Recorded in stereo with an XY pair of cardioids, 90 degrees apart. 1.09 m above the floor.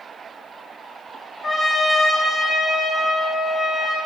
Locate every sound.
1.4 s a trumpet: 25° left, 0.7 m